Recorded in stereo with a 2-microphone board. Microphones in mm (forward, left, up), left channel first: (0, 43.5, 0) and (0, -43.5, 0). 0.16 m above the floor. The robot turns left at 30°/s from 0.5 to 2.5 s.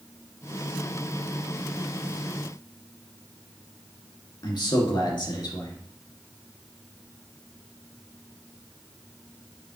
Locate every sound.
4.4 s a man speaking: 55° left (ahead or behind), 2.0 m